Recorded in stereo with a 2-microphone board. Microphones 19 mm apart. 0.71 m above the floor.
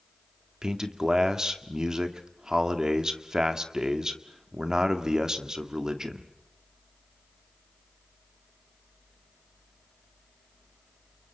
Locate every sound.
0.6 s a man speaking: 35° right (ahead or behind), 1.8 m